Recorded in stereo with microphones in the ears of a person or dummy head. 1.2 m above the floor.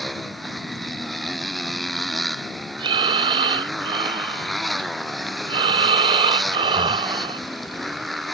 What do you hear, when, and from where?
0.0 s a motorcycle: 5° left (ahead or behind)
2.8 s breathing: 25° right (ahead or behind)